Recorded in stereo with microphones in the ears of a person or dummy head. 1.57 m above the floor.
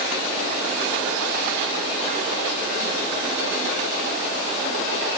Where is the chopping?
I don't hear chopping.